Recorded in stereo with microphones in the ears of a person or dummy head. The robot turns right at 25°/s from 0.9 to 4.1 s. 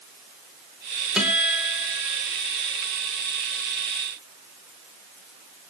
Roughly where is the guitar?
Centre.